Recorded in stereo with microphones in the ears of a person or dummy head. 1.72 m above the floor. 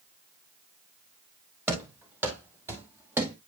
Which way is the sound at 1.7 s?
15° right (ahead or behind).